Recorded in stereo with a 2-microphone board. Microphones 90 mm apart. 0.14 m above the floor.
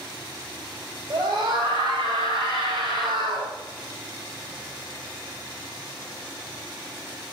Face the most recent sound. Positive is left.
turn(degrees=-55)  # may be behind; listen again after turning